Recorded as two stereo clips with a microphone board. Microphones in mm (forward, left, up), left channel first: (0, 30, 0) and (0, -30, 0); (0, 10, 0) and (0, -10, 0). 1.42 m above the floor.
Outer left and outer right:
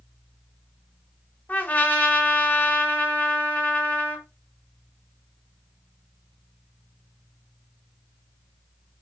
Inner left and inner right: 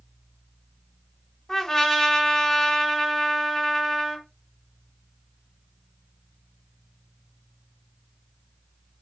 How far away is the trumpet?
About 2.5 m.